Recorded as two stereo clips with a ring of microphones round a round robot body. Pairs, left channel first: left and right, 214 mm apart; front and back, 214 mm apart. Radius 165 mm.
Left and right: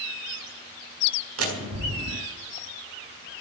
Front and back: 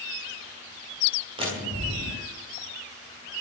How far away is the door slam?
About 4.5 m.